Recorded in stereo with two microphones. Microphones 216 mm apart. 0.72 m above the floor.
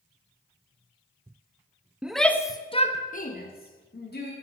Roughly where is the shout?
Centre.